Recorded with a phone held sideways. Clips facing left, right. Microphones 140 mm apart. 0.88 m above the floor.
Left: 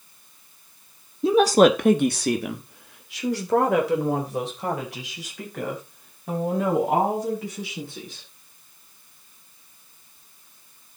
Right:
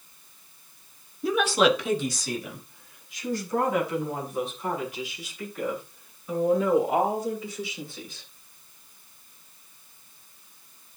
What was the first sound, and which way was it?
A woman speaking, 20° left (ahead or behind).